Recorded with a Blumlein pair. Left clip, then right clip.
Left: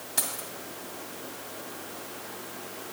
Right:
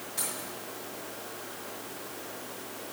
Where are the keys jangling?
65° left, 2 m.